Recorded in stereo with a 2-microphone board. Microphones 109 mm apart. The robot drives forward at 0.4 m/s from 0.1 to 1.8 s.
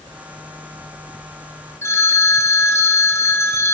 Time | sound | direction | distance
1.8 | a phone ringing | 25° left (ahead or behind) | 1.1 m